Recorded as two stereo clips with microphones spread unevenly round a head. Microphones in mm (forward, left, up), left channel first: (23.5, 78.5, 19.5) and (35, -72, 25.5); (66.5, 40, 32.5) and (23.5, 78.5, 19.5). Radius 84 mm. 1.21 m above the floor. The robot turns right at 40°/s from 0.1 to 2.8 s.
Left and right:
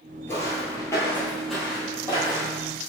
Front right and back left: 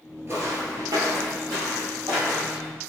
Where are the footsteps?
160° left, 1.2 m; by 2.7 s 135° right, 3 m.